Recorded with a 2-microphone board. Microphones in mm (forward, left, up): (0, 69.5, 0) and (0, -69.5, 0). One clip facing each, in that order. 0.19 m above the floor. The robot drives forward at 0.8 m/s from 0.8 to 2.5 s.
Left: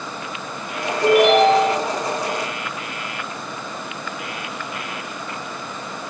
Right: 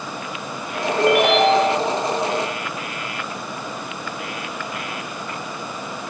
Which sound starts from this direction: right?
A ringtone, at 1.0 s.